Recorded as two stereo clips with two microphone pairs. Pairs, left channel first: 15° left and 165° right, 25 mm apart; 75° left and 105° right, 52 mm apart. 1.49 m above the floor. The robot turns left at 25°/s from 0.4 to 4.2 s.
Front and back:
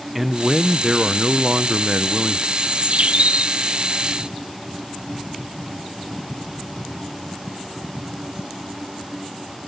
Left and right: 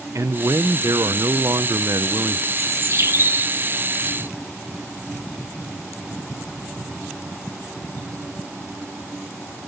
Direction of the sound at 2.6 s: 130° right.